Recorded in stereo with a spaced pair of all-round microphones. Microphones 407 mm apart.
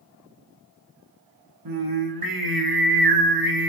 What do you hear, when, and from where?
1.6 s singing: 55° right (ahead or behind), 1.0 m